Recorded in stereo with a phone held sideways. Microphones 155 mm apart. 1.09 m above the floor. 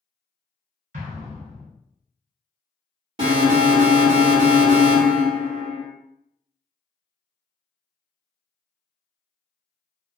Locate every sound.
0.9 s an explosion: 50° right (ahead or behind), 1.5 m
3.2 s an alarm: 35° right (ahead or behind), 1.1 m